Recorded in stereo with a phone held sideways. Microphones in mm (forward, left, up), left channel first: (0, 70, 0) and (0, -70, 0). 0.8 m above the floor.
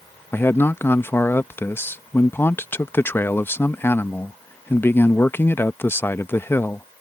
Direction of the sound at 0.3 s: 15° left (ahead or behind).